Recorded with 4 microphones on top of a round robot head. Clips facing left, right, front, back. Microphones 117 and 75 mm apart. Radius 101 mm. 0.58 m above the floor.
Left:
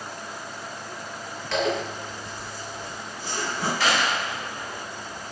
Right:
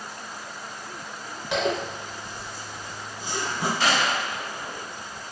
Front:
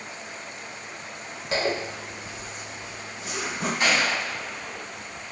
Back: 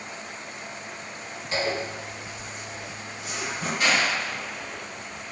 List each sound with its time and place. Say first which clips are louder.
1.5 s a zipper: even, front 1 dB; 15° right, 0.6 m
3.8 s a gunshot: even, even; 35° right, 1.6 m